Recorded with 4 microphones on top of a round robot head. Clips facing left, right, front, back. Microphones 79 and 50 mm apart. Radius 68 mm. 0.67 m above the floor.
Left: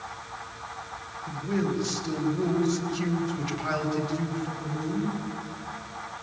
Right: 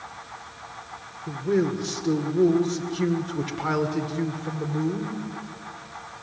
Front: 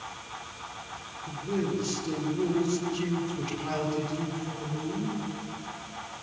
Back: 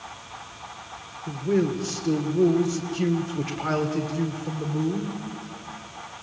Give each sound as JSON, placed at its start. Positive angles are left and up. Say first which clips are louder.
{"t": 1.3, "sound": "a man speaking", "louder": "right 5 dB, back 7 dB", "azimuth_deg": -125, "distance_m": 2.5}